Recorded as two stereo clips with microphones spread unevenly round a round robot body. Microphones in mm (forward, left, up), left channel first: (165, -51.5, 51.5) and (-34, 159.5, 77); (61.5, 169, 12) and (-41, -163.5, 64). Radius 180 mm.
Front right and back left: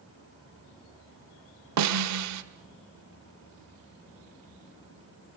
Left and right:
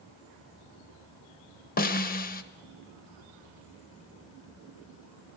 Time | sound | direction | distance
1.8 | a snare drum | 130° left | 1.4 m